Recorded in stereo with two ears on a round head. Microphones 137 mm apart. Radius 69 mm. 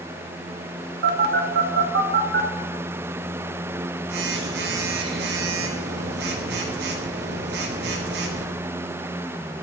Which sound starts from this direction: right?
A phone buzzing, at 1.0 s.